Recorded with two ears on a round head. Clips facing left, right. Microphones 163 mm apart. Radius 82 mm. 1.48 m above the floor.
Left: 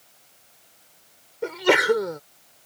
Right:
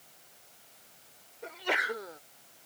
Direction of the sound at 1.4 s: 85° left.